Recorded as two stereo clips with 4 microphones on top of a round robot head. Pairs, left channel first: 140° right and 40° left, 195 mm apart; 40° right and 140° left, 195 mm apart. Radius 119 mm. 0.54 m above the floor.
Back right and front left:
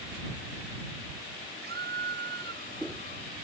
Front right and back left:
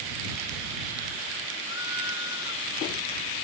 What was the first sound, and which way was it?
A scream, straight ahead.